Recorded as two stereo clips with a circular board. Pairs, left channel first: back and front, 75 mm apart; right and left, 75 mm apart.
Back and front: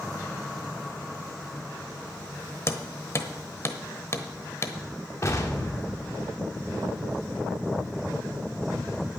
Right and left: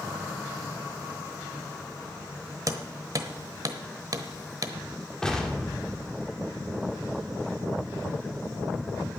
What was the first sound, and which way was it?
Hammering, 125° left.